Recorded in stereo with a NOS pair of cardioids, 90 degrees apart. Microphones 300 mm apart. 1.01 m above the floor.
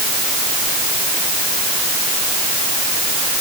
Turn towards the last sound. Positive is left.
No sound to turn to.